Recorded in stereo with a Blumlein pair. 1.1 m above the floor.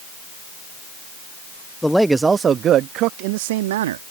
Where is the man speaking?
5° left; by 4.1 s 60° right.